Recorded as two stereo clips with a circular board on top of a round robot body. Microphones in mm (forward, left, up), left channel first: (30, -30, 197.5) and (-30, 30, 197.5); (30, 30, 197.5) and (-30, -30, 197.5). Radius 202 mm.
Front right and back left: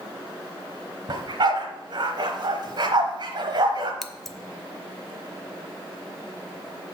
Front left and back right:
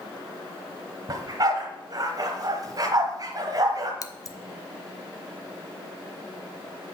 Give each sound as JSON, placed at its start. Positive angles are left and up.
{"t": 1.1, "sound": "a dog barking", "azimuth_deg": 175, "distance_m": 0.9}
{"t": 4.0, "sound": "scissors", "azimuth_deg": 40, "distance_m": 1.0}